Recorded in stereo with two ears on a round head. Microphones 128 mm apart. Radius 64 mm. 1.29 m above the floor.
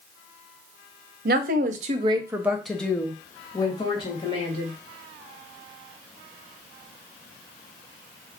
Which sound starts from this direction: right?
A woman speaking, at 1.2 s.